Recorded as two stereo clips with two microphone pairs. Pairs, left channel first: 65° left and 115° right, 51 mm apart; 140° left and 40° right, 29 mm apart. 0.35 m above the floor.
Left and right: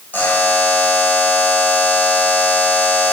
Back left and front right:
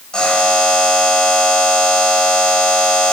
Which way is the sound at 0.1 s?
90° left.